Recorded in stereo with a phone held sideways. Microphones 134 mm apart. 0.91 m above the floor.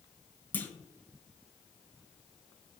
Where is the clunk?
15° left (ahead or behind), 0.7 m.